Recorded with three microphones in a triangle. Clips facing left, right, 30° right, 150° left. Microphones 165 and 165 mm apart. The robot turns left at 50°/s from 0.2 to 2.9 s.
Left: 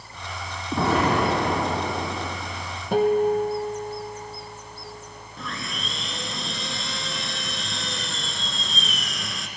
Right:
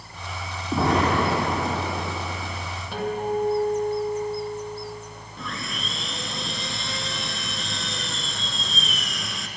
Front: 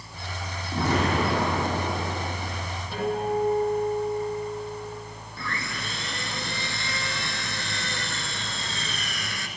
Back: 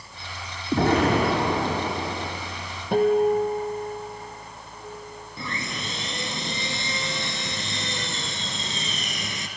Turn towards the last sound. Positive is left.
turn(degrees=180)